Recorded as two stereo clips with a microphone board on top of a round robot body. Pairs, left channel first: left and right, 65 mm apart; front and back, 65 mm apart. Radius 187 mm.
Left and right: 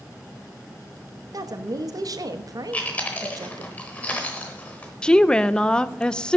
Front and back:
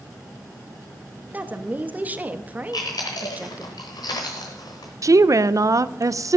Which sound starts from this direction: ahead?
Chewing, at 2.7 s.